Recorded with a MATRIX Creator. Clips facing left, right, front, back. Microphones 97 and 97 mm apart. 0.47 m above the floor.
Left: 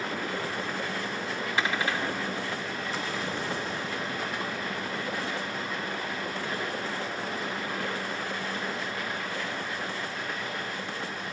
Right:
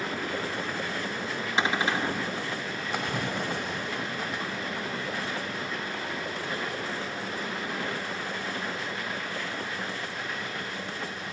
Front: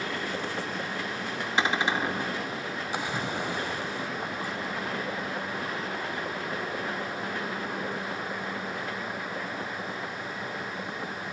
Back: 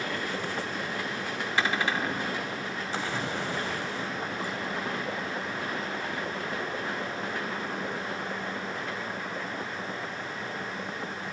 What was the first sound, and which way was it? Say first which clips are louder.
A cupboard door: right 3 dB, front 2 dB; 45° right.